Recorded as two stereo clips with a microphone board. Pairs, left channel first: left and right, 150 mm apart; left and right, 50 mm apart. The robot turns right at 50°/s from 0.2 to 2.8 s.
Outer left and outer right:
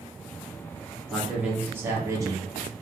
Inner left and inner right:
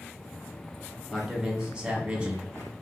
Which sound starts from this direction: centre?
A man speaking, at 1.1 s.